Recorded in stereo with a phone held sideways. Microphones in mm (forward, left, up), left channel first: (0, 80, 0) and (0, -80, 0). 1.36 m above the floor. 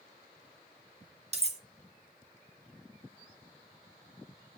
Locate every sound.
1.3 s cutlery clinking: 40° right (ahead or behind), 0.6 m